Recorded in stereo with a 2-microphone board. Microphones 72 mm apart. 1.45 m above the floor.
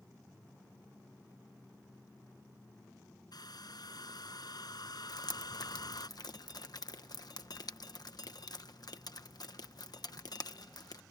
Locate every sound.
3.3 s a hair dryer: 65° left (ahead or behind)
5.1 s dripping: 60° left (ahead or behind)